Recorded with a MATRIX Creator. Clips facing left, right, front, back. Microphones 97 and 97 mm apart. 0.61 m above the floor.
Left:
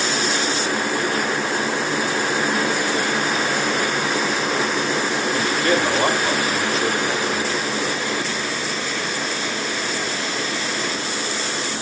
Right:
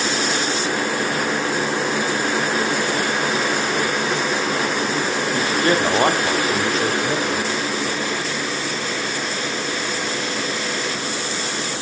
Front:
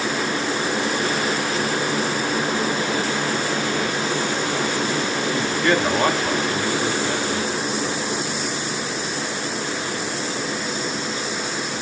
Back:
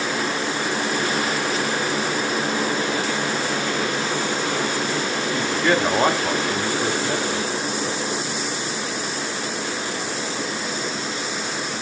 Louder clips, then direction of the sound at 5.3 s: Right 2 dB, even; 100° right.